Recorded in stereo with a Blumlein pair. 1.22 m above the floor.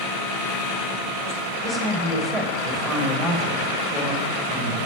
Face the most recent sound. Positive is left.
turn(degrees=5)